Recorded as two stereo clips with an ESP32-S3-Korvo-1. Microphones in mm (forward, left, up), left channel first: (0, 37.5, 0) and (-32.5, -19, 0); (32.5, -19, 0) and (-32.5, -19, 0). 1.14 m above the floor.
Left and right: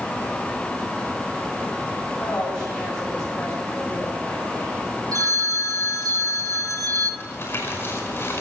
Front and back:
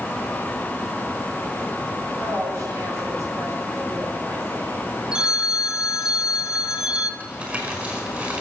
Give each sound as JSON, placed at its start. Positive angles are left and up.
{"t": 2.2, "sound": "a woman speaking", "azimuth_deg": 145, "distance_m": 6.0}
{"t": 5.1, "sound": "a phone ringing", "azimuth_deg": -105, "distance_m": 2.5}
{"t": 7.2, "sound": "crumpling", "azimuth_deg": 115, "distance_m": 5.0}